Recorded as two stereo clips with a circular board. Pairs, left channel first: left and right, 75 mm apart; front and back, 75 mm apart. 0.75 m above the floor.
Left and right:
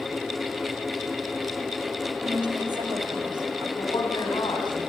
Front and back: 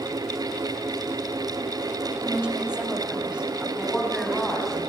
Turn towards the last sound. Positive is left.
turn(degrees=95)